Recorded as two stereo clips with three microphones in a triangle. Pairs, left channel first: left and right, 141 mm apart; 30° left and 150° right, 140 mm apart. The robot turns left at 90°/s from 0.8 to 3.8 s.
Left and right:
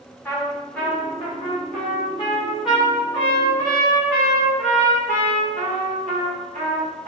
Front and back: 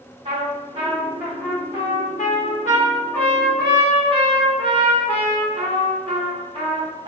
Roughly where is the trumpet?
Behind.